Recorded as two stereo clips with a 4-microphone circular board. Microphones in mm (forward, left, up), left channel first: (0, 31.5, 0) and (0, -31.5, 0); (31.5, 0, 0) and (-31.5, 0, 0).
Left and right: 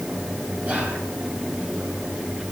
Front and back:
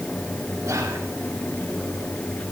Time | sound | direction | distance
0.6 | whispering | 150° right | 3 m